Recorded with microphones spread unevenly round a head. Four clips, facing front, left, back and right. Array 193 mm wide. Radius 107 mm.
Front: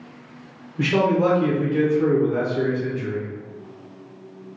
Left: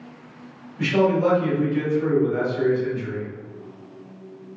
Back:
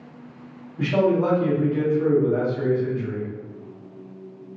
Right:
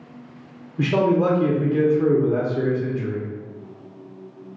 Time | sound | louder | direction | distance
0.8 | a man speaking | even, front 1 dB | 60° right | 1.4 m